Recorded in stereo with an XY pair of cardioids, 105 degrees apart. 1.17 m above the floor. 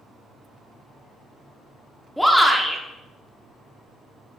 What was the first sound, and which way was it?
A shout, straight ahead.